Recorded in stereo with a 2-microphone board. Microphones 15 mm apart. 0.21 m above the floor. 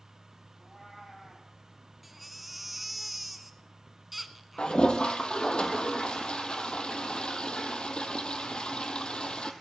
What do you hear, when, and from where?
0.6 s a cat meowing: 25° left (ahead or behind), 4.5 m
2.0 s a baby crying: 5° right (ahead or behind), 0.9 m
4.6 s a toilet flushing: 70° left (ahead or behind), 1.3 m